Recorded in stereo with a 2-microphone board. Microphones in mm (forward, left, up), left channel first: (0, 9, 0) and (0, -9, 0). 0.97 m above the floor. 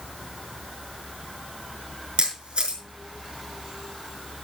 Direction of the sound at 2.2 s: 70° right (ahead or behind).